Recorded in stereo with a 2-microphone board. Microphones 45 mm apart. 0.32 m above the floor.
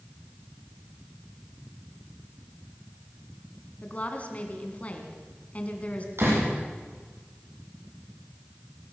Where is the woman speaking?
35° left (ahead or behind), 3 m.